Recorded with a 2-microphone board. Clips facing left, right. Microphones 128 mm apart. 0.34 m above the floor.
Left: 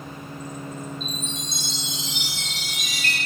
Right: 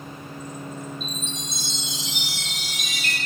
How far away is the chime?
About 0.6 m.